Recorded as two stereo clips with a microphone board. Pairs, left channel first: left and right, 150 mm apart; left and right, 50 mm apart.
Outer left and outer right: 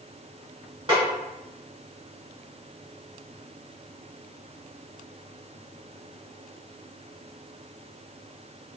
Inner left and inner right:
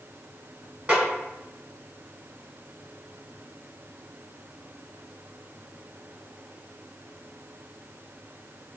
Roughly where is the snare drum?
Right.